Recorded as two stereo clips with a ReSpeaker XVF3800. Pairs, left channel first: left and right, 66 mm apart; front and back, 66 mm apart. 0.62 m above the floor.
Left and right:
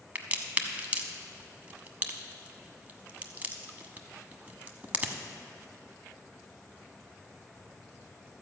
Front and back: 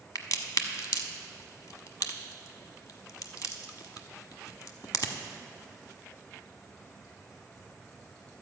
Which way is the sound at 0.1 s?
25° right.